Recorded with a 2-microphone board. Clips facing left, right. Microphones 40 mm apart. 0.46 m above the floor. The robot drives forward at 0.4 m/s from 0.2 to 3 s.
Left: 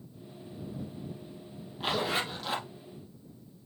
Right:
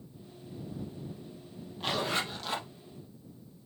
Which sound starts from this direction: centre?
A zipper, at 1.8 s.